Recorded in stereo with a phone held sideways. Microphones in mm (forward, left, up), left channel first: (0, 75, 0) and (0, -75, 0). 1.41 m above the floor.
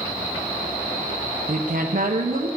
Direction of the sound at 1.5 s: 65° right (ahead or behind).